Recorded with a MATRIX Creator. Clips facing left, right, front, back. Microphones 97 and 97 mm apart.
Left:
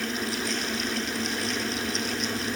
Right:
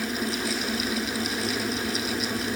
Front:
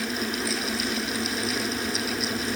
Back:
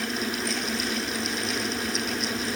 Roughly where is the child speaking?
No child speaking in this recording.